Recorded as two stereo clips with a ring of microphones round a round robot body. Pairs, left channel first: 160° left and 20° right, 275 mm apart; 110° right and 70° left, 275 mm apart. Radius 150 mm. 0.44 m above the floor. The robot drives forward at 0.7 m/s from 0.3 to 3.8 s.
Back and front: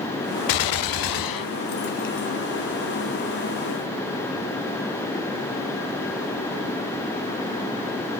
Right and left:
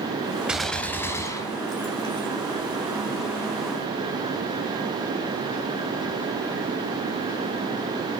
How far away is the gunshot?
About 0.5 m.